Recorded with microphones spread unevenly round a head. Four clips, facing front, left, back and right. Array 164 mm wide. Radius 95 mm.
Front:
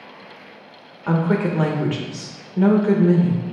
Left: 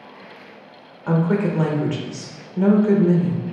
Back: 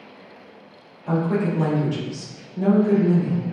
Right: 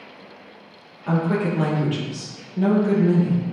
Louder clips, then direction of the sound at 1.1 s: Left 2 dB, front 2 dB; 5° left.